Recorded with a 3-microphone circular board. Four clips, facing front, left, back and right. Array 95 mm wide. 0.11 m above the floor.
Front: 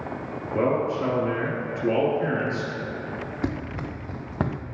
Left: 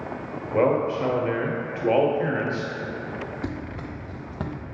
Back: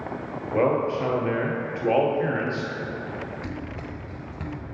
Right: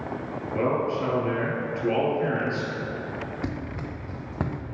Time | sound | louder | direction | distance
0.5 | a man speaking | left 4 dB, back 1 dB | 135° left | 1.9 m
3.4 | running footsteps | even, front 5 dB | 10° right | 1.5 m